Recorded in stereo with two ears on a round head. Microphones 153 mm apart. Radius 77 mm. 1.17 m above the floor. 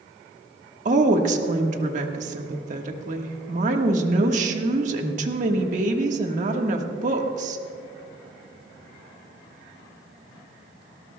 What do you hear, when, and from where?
0.8 s a woman speaking: 45° right (ahead or behind), 1.4 m